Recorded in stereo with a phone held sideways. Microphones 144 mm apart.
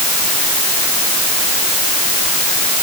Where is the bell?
No bell in this recording.